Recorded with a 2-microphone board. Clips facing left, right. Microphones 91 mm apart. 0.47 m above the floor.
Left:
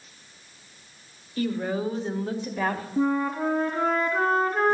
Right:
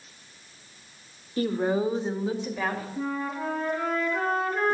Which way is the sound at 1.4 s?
35° right (ahead or behind).